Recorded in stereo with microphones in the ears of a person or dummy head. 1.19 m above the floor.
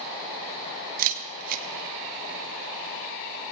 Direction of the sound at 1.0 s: 45° right (ahead or behind).